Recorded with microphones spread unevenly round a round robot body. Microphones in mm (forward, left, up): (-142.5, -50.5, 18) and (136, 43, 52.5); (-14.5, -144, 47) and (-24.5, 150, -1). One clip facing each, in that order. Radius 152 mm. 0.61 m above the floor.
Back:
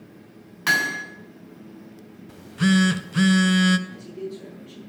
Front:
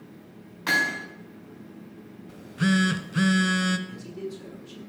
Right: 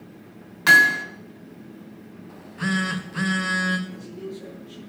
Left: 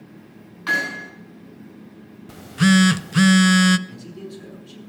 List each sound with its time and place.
0.7 s hammering: 100° right, 4.5 m
2.3 s a phone buzzing: 110° left, 0.5 m
3.9 s a man speaking: 75° left, 6.5 m